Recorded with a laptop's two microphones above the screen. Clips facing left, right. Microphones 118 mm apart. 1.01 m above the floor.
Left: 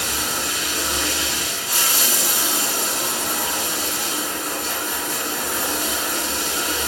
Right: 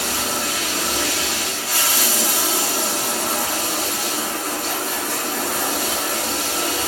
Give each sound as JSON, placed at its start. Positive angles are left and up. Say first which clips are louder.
{"t": 0.0, "sound": "running water", "louder": "right 2 dB", "side_deg": -70, "distance_m": 2.0}